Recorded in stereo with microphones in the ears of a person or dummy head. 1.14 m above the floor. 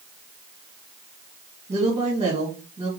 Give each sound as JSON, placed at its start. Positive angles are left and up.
{"t": 1.7, "sound": "a woman speaking", "side_deg": -20, "distance_m": 1.9}